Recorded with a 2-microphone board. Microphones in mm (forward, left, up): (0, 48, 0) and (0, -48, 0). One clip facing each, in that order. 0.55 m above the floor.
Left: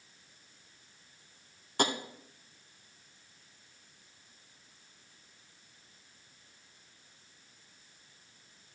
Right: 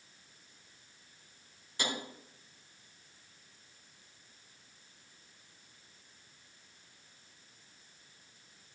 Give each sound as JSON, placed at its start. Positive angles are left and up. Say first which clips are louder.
{"t": 1.8, "sound": "tapping", "louder": "left 7 dB", "side_deg": 60, "distance_m": 0.7}